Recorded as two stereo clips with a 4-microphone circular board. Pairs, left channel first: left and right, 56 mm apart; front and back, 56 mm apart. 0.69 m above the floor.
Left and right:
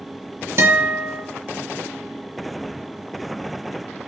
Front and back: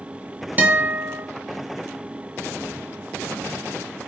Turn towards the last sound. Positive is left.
turn(degrees=-120)